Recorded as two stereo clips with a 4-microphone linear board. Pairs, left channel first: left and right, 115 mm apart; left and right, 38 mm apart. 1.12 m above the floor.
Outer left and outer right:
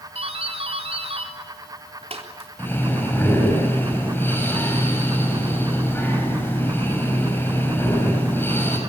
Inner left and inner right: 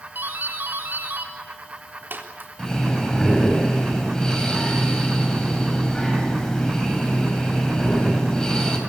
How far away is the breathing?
About 6.5 m.